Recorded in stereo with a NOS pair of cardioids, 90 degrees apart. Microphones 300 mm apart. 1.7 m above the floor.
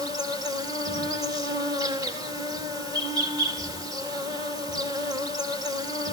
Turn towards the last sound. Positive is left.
turn(degrees=-10)